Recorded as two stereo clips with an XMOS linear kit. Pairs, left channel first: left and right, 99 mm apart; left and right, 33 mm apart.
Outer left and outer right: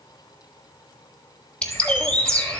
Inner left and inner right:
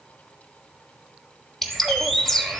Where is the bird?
10° left (ahead or behind), 1.3 m.